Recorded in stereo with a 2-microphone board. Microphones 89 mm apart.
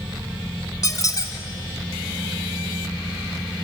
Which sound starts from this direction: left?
A squeak, at 0.8 s.